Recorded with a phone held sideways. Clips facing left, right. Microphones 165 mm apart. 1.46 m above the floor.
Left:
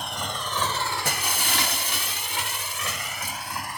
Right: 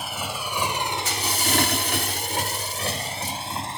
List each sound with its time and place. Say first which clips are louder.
0.0 s a motorcycle: right 1 dB; 5° right (ahead or behind); by 3.8 s 25° right (ahead or behind)
1.1 s breaking glass: right 3 dB; 60° left (ahead or behind)